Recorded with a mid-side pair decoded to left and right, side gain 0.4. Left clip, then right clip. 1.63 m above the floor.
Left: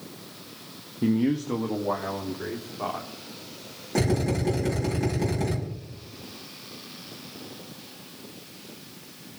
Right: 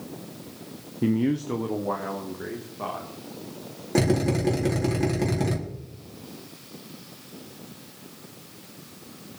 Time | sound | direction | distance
1.0 | a man speaking | 15° right | 0.8 m
4.0 | a drill | 40° right | 4.5 m